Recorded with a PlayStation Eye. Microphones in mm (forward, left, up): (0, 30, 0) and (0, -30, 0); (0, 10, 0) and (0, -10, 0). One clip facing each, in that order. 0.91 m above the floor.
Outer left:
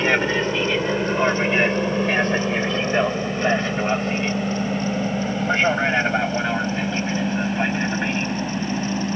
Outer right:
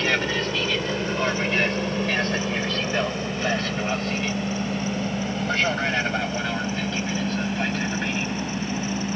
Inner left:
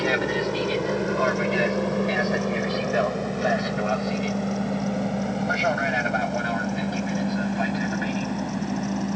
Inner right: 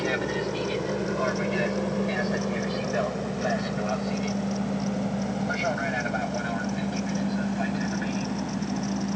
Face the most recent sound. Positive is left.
turn(degrees=20)  # may be behind; listen again after turning